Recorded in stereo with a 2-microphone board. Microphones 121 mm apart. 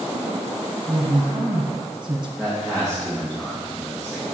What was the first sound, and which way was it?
A woman speaking, 40° right (ahead or behind).